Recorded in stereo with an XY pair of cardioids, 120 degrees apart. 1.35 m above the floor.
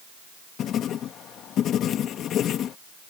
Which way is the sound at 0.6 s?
60° left.